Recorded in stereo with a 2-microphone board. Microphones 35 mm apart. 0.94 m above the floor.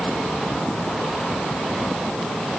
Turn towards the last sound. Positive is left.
No sound to turn to.